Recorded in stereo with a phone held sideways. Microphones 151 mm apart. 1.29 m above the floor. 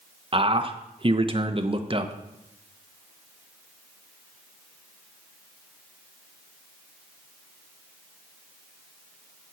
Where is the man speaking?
35° right (ahead or behind), 1.0 m.